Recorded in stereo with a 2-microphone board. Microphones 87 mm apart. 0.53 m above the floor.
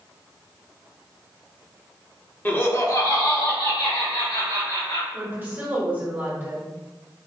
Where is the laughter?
20° left (ahead or behind), 0.9 m; by 5.0 s 70° left (ahead or behind), 2 m.